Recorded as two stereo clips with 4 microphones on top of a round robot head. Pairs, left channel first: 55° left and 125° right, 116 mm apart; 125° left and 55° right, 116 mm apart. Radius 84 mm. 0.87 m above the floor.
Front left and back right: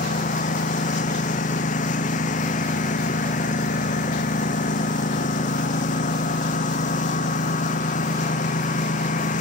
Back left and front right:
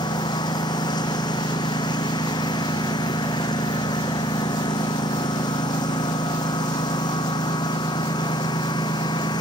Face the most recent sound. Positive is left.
turn(degrees=70)